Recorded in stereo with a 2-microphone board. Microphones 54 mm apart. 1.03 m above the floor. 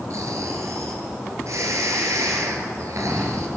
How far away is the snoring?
About 4 m.